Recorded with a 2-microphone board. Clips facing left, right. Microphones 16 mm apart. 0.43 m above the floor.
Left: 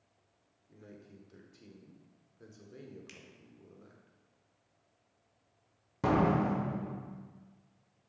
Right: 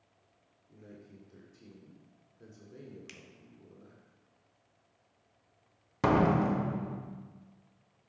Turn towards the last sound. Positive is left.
turn(degrees=-35)  # may be behind; listen again after turning